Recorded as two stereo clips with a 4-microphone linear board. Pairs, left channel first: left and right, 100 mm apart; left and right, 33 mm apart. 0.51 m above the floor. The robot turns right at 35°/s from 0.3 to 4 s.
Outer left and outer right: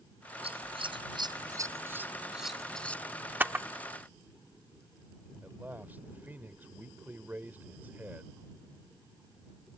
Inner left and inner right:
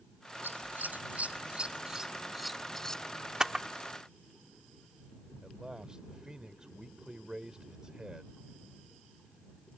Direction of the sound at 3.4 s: 20° right (ahead or behind).